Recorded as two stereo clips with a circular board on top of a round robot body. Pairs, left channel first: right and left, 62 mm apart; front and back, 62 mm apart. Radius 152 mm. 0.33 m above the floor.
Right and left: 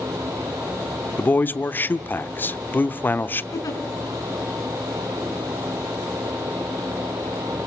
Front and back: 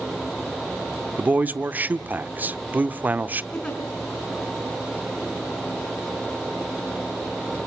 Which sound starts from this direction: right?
A giggle, at 3.5 s.